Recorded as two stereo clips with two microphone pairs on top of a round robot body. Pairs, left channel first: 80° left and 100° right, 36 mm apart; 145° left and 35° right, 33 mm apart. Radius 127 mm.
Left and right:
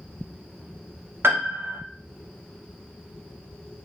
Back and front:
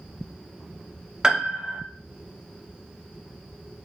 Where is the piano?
100° right, 0.7 m.